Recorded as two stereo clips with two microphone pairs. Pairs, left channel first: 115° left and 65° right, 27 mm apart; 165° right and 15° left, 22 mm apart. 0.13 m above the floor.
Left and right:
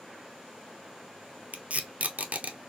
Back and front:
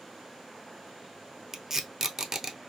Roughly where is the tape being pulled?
Ahead right.